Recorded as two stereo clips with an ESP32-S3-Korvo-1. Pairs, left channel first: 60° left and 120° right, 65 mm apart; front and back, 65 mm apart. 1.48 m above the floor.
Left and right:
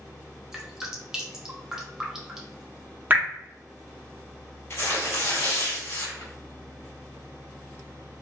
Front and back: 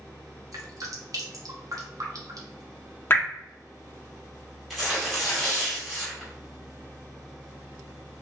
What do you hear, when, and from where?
0.5 s dripping: 160° left, 0.7 m
3.1 s dripping: 55° right, 0.7 m
4.7 s tearing paper: 90° left, 1.7 m